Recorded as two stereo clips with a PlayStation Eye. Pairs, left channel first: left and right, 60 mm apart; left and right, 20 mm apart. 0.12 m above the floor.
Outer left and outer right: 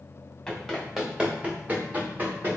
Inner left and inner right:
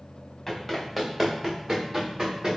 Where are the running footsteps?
5° left (ahead or behind), 1.1 m; by 2.6 s 35° right (ahead or behind), 1.7 m.